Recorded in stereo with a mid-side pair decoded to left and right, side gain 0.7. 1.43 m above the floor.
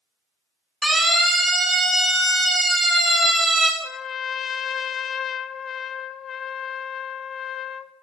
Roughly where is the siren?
Ahead.